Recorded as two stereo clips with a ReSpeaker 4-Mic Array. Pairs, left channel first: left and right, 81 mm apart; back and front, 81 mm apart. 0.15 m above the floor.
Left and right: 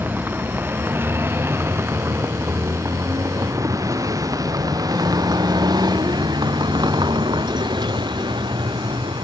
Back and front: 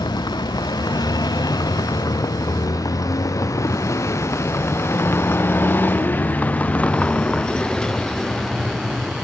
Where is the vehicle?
155° right; by 9.2 s 90° right.